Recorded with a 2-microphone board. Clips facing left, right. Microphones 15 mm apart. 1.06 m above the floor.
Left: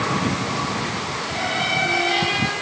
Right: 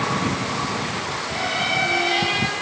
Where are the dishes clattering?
I don't hear dishes clattering.